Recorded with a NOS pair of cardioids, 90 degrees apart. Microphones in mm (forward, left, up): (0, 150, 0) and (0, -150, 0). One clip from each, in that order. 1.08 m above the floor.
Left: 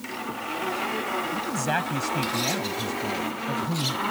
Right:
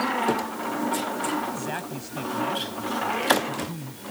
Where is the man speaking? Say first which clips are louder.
Left 3 dB; 55° left.